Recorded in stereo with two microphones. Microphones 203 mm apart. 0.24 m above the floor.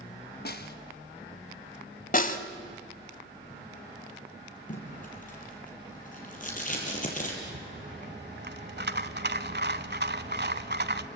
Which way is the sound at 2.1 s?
45° left (ahead or behind).